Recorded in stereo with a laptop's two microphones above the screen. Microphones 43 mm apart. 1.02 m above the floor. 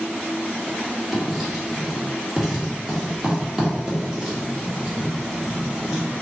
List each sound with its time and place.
1.1 s writing: 15° right (ahead or behind), 1.2 m